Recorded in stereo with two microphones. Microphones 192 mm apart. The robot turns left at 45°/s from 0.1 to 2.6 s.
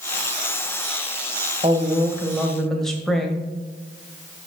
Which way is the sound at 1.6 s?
140° right.